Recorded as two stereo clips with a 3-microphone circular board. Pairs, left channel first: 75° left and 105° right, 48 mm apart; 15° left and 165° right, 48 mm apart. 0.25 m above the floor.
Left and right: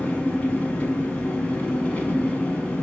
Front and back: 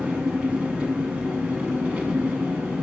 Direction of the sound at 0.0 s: 130° left.